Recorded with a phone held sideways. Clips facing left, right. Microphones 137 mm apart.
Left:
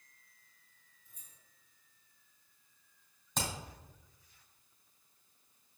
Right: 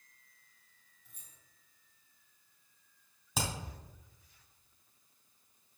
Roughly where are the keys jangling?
Right.